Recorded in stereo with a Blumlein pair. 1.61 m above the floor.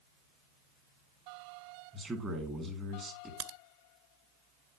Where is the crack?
40° right, 0.5 m.